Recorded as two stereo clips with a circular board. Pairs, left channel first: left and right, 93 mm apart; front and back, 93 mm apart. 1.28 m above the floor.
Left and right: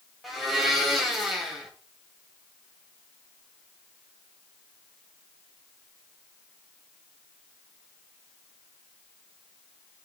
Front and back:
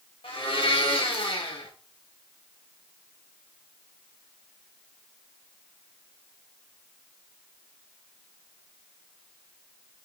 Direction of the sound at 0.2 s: Straight ahead.